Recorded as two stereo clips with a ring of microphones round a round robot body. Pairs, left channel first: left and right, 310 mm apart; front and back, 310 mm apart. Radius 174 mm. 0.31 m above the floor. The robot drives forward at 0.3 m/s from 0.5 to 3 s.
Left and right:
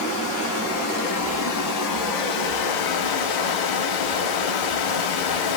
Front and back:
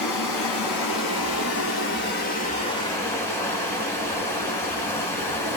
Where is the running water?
35° left, 1.1 m; by 5.6 s 80° left, 0.7 m.